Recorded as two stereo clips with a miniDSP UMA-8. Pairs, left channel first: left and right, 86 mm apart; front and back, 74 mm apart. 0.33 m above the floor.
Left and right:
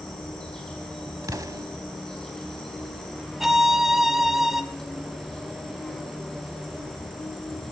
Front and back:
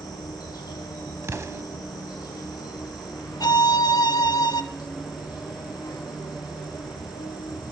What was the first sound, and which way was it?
An insect, 10° left.